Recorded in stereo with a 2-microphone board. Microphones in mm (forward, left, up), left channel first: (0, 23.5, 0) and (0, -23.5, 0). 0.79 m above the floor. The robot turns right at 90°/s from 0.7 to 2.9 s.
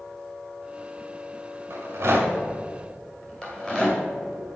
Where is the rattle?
85° right, 1.9 m; by 4.0 s 20° left (ahead or behind), 1.9 m.